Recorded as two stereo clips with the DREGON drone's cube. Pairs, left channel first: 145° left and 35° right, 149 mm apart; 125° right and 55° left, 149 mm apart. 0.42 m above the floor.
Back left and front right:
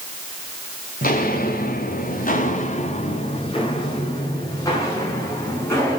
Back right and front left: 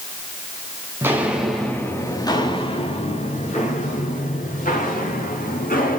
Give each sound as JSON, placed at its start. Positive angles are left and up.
{"t": 1.0, "sound": "footsteps", "azimuth_deg": 130, "distance_m": 2.0}